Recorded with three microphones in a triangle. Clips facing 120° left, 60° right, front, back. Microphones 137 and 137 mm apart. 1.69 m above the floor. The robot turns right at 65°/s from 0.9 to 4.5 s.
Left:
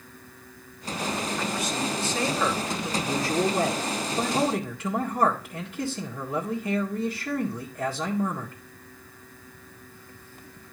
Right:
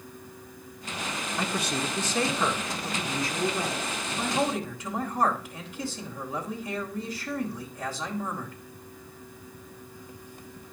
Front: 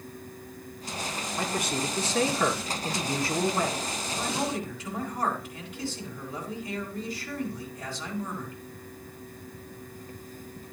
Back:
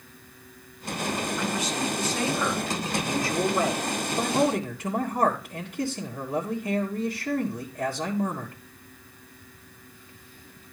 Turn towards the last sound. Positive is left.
turn(degrees=145)